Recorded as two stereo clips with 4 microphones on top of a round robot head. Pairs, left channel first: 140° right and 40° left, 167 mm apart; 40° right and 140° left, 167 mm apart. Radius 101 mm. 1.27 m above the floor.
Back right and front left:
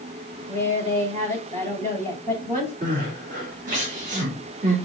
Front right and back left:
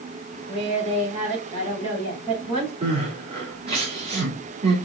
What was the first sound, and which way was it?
A woman speaking, 85° left.